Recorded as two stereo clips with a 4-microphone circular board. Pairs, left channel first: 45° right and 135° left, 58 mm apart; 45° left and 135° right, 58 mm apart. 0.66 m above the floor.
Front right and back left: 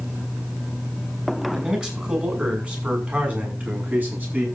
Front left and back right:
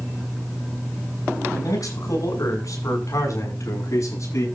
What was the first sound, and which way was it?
A man speaking, 60° left.